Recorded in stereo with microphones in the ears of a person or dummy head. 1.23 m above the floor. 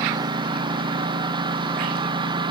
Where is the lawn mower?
25° right (ahead or behind); by 2.5 s 30° right (ahead or behind).